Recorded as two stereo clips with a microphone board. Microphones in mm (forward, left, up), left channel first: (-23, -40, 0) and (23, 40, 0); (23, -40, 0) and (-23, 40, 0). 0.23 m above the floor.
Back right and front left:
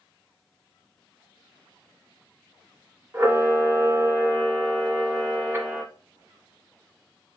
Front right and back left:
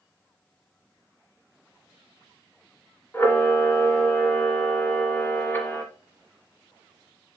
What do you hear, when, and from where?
3.1 s a camera shutter: straight ahead, 1.3 m